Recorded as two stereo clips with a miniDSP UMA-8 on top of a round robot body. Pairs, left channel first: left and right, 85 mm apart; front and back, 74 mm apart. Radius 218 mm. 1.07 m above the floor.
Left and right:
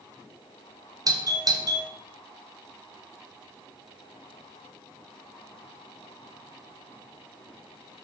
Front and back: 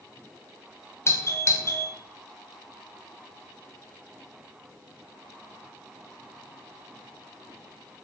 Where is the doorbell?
50° right, 2 m.